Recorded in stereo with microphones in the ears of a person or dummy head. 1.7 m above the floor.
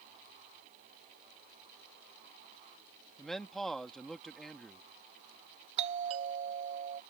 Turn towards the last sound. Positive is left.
turn(degrees=-35)  # may be behind; listen again after turning